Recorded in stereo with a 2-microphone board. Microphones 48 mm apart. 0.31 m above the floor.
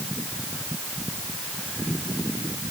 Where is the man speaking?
I don't hear a man speaking.